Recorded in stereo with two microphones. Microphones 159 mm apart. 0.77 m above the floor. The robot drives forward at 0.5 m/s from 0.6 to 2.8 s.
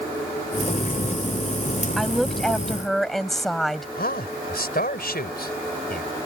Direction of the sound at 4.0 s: 75° left (ahead or behind).